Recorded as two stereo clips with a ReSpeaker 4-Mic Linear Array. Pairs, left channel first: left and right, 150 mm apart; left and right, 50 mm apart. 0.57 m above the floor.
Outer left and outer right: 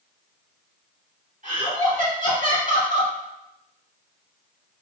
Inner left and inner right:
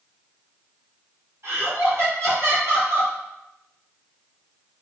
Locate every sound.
1.4 s laughter: 55° right (ahead or behind), 1.3 m